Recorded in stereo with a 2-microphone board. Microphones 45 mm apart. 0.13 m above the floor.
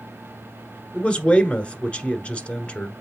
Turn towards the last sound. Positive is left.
turn(degrees=30)  # may be behind; listen again after turning